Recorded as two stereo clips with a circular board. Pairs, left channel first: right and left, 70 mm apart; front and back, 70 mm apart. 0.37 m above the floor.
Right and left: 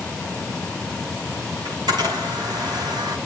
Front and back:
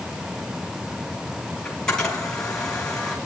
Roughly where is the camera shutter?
Left.